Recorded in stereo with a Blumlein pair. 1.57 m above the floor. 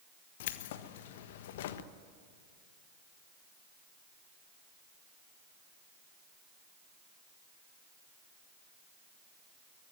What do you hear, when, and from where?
0.4 s keys jangling: 55° left, 1.3 m